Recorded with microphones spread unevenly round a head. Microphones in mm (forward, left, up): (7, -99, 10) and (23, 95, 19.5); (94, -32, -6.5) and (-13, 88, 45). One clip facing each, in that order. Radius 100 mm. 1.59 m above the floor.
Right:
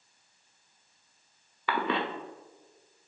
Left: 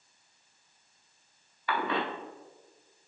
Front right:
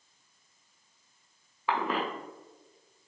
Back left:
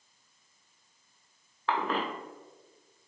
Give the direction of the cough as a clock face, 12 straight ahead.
4 o'clock.